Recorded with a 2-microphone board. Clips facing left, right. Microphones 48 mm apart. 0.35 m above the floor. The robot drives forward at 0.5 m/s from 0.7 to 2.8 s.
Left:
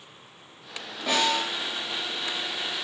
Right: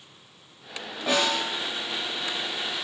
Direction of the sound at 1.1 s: 10° right (ahead or behind).